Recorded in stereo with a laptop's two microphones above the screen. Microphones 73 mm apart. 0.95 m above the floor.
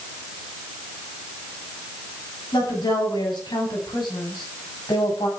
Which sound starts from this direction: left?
A woman speaking, at 2.5 s.